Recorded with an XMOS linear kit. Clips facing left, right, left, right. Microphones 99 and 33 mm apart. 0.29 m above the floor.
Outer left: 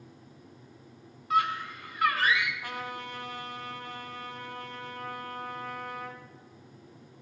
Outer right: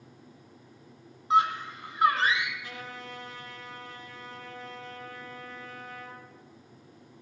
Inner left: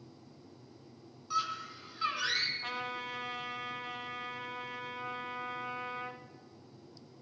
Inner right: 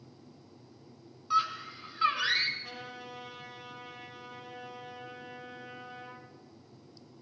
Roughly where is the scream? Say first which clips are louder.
Outer right 3 dB, inner right 5 dB; right.